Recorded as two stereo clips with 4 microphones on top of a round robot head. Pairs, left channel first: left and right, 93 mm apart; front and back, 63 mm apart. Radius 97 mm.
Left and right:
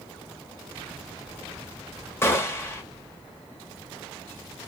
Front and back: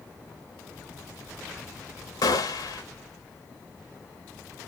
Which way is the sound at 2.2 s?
25° left.